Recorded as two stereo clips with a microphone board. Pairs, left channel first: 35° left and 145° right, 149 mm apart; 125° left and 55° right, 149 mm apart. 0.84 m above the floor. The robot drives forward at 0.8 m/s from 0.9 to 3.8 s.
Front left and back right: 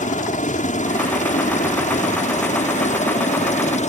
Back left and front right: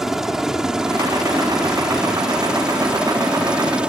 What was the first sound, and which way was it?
A helicopter, 30° left.